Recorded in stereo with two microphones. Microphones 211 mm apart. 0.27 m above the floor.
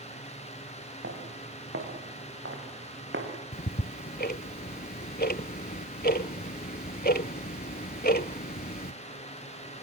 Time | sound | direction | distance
1.0 | footsteps | 75° right (ahead or behind) | 8 m
3.5 | ticking | 45° left (ahead or behind) | 0.7 m